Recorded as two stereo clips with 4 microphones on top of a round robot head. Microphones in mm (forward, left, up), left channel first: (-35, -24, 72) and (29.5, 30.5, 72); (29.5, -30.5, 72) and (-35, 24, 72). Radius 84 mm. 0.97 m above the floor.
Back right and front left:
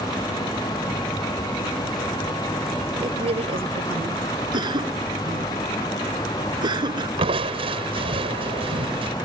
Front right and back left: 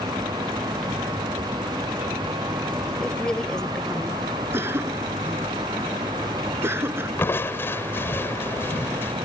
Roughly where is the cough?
Left.